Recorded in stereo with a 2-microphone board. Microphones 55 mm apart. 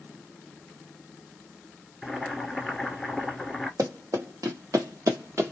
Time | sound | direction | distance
2.0 | boiling | centre (ahead or behind) | 1.3 m
3.8 | running footsteps | 85° right | 1.3 m